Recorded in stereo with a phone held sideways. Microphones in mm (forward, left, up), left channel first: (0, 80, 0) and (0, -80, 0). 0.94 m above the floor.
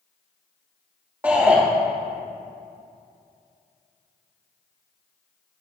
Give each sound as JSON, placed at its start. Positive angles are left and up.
{"t": 1.2, "sound": "a shout", "side_deg": -10, "distance_m": 2.5}